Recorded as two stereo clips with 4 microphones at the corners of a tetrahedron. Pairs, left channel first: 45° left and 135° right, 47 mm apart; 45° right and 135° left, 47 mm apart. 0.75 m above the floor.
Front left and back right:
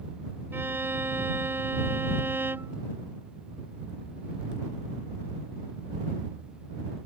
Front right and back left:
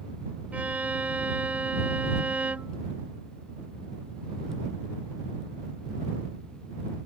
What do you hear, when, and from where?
0.5 s a violin: 170° right